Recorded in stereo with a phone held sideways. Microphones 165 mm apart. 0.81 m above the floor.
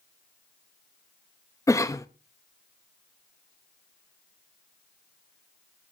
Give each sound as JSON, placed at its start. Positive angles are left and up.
{"t": 1.7, "sound": "a cough", "side_deg": 20, "distance_m": 0.6}